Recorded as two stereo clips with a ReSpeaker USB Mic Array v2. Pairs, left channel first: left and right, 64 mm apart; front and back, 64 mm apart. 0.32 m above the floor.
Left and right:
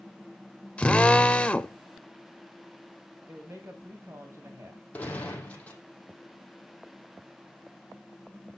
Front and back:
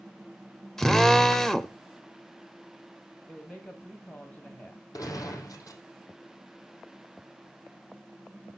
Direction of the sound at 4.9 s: 25° left.